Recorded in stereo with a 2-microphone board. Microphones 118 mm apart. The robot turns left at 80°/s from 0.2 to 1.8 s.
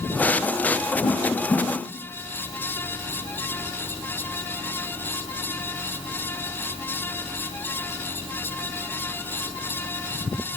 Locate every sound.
1.0 s a whoosh: 60° left (ahead or behind), 4 m; by 1.7 s 10° left (ahead or behind), 4 m